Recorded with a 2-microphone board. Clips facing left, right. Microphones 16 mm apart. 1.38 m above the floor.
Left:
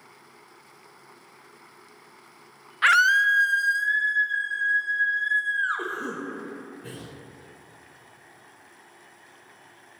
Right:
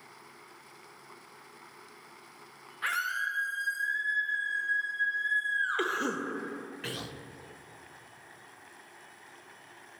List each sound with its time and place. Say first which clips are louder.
2.8 s a scream: left 13 dB; 40° left (ahead or behind), 0.8 m; by 5.9 s 25° left (ahead or behind), 3 m
5.8 s a cough: right 1 dB; 85° right, 1.0 m